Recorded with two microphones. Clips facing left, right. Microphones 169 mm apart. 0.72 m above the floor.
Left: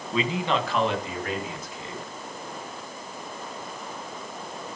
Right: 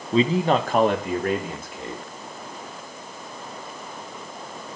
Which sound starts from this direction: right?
A man speaking, at 0.1 s.